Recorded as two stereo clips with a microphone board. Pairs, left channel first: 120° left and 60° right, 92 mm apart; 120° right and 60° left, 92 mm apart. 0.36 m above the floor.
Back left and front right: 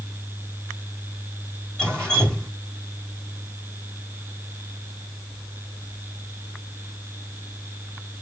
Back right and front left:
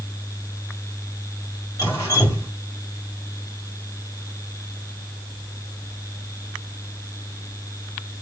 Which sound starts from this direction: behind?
Dripping, at 1.8 s.